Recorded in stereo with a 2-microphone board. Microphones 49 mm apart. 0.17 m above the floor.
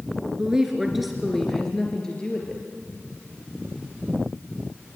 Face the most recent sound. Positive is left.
turn(degrees=25)  # may be behind; listen again after turning